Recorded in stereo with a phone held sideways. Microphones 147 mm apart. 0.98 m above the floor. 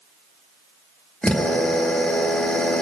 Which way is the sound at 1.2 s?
5° left (ahead or behind).